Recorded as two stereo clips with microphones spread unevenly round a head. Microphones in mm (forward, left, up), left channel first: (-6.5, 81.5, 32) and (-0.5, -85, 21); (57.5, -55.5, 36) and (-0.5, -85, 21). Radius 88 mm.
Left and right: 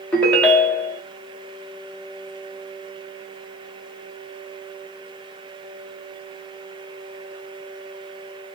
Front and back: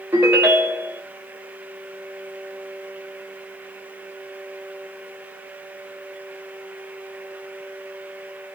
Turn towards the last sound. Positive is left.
turn(degrees=145)